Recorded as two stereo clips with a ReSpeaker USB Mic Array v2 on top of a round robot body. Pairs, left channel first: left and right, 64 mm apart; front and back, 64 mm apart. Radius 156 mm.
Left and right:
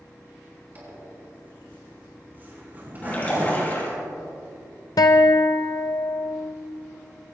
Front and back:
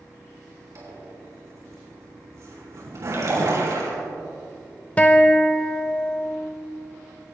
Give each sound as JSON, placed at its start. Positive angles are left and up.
{"t": 0.8, "sound": "a zipper", "azimuth_deg": -150, "distance_m": 6.0}
{"t": 3.0, "sound": "a splash", "azimuth_deg": 150, "distance_m": 6.0}
{"t": 5.0, "sound": "a guitar", "azimuth_deg": 70, "distance_m": 0.6}